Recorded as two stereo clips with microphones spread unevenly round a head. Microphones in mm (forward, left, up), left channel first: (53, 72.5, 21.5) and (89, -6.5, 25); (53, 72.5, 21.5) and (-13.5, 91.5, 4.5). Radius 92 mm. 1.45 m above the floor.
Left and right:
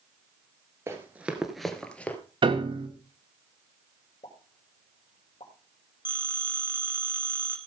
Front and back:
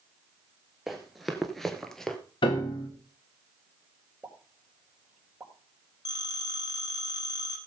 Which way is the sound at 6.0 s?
Straight ahead.